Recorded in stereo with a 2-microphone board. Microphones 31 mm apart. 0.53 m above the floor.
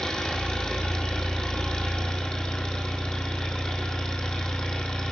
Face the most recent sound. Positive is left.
turn(degrees=20)  # may be behind; listen again after turning